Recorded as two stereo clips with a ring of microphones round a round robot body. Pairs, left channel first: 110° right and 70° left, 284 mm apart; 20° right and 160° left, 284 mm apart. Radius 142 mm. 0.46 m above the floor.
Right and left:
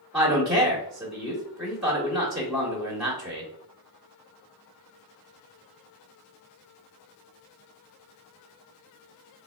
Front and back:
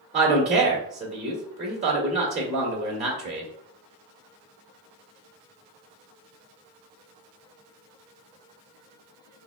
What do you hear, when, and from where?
0.1 s a man speaking: 150° left, 1.2 m